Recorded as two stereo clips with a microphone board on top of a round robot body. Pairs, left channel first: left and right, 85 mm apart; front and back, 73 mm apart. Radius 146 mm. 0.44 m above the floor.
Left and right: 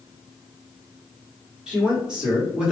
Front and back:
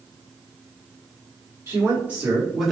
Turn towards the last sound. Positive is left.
turn(degrees=-95)